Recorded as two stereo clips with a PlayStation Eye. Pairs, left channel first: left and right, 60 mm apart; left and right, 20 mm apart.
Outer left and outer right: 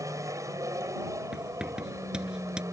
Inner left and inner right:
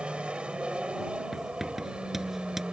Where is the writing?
15° right (ahead or behind).